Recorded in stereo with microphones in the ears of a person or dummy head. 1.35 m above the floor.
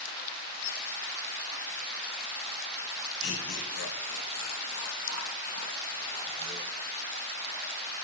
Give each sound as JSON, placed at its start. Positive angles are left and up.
{"t": 3.2, "sound": "laughter", "side_deg": 80, "distance_m": 3.0}